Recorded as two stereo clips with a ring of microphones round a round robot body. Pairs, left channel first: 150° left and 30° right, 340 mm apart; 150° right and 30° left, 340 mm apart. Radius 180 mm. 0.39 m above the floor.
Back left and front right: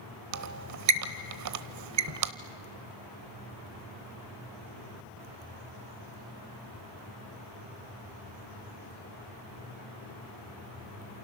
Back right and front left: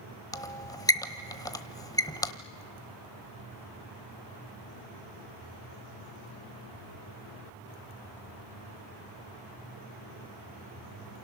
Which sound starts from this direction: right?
A squeak, at 0.3 s.